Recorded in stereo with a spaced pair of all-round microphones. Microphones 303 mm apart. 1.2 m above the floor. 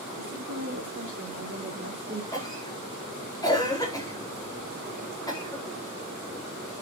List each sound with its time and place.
0.2 s a woman speaking: 60° right (ahead or behind), 4.5 m; by 2.2 s 40° right (ahead or behind), 3 m
2.3 s a cough: 10° left (ahead or behind), 5 m